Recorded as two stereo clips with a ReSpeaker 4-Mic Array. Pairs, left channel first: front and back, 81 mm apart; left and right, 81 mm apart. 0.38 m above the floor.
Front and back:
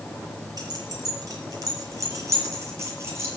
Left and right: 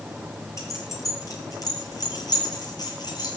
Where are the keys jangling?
140° left, 5.5 m; by 3.4 s 120° left, 6.5 m.